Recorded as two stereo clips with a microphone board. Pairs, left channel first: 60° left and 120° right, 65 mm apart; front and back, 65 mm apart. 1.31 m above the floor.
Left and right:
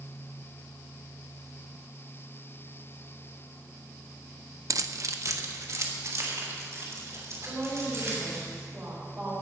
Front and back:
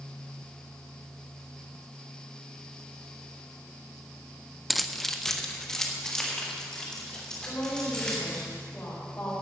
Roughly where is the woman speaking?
Ahead right.